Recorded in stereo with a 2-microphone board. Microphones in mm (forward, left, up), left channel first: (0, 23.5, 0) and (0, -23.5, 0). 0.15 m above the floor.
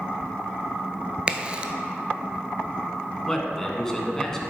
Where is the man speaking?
10° left (ahead or behind), 1.2 m.